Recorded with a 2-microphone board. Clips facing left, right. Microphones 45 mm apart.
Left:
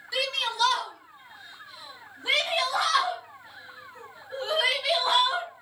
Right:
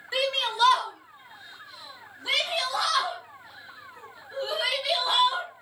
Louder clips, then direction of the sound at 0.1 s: Right 2 dB; 35° right (ahead or behind).